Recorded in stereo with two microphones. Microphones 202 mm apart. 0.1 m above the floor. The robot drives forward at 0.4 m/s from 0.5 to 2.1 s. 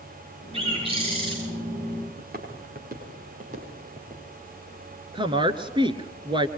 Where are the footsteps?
50° right (ahead or behind), 6 m; by 4.2 s 40° right (ahead or behind), 9 m.